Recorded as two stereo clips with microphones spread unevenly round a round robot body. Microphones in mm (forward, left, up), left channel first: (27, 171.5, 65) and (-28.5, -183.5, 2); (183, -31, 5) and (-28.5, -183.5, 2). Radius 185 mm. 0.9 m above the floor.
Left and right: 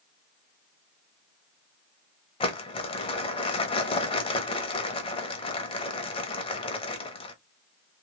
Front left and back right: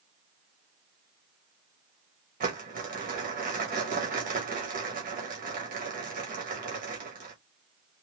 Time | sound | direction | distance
2.4 | crumpling | 160° left | 0.7 m